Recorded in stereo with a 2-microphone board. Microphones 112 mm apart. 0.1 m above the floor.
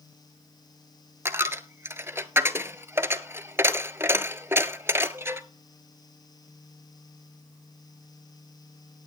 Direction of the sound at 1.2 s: 25° right (ahead or behind).